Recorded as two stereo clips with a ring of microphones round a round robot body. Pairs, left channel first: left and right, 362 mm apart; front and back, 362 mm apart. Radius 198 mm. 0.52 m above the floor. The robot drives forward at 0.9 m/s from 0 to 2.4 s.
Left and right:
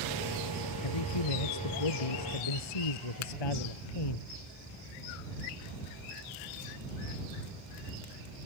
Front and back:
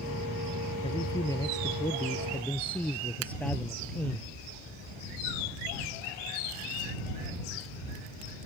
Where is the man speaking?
80° left; by 4.2 s 85° left.